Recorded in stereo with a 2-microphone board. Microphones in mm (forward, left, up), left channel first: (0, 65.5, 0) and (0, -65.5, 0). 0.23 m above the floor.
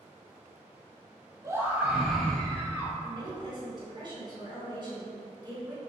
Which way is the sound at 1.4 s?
25° right (ahead or behind).